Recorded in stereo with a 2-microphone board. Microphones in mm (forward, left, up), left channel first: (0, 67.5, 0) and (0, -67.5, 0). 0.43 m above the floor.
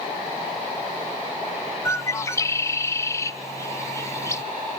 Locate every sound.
1.9 s a bird: 20° left (ahead or behind), 0.6 m